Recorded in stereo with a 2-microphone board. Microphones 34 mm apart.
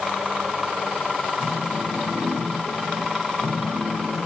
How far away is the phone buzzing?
About 8.5 m.